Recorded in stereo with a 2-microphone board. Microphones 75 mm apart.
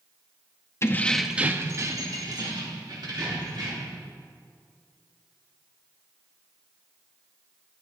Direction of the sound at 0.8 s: 35° left (ahead or behind).